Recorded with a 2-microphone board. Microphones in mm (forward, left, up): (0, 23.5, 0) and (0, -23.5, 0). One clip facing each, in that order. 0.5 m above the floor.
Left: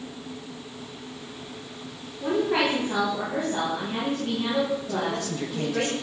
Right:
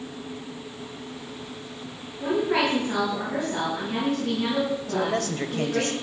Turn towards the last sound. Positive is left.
turn(degrees=-55)  # may be behind; listen again after turning